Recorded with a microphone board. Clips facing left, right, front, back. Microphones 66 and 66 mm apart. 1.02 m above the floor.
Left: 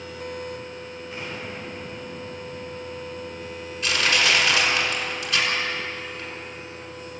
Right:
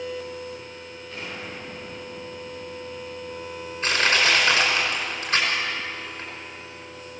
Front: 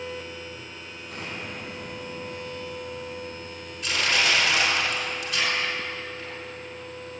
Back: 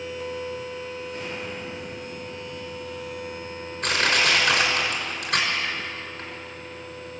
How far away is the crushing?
About 5.5 m.